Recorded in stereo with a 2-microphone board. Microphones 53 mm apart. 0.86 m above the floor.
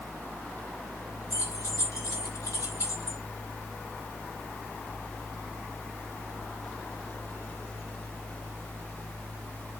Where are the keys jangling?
85° left, 3.5 m; by 3.2 s 70° left (ahead or behind), 2 m.